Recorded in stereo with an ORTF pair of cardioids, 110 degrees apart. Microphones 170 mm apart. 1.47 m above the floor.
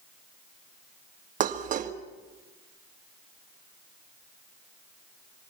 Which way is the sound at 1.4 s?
50° right.